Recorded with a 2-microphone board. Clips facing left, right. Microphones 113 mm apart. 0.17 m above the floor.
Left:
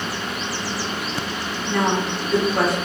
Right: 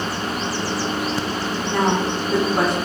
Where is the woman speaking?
25° right (ahead or behind), 1.1 m.